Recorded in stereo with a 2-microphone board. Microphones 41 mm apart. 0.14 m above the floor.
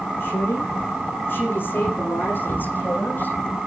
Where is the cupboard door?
60° left (ahead or behind), 8 m.